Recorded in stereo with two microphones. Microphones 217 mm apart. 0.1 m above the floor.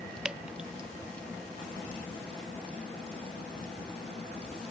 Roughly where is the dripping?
Centre.